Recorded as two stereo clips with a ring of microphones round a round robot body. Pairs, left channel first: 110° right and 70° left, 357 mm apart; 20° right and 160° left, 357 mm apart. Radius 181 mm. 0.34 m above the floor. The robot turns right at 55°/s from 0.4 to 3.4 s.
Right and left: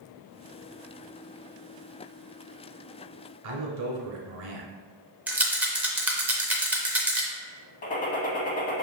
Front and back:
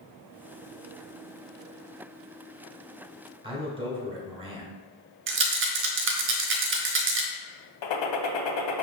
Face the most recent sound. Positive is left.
turn(degrees=-45)